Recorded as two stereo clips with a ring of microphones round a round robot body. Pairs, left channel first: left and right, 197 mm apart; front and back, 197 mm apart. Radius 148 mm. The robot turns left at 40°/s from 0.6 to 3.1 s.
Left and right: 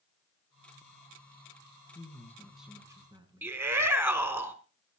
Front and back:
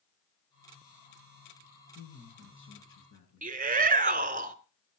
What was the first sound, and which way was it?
A man speaking, 25° left.